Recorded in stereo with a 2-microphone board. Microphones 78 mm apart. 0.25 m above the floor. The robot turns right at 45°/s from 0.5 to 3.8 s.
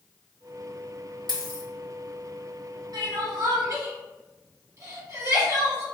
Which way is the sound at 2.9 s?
60° right (ahead or behind).